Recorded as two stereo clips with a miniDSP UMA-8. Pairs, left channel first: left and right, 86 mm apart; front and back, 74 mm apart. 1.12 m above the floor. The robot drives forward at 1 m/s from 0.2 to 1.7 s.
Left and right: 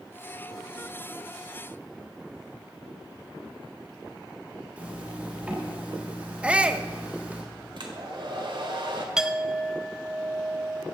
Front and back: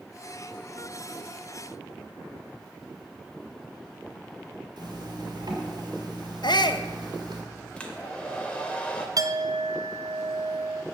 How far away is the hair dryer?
About 1.6 m.